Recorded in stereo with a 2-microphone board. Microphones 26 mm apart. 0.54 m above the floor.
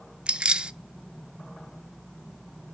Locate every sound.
0.3 s keys jangling: 40° right (ahead or behind), 0.5 m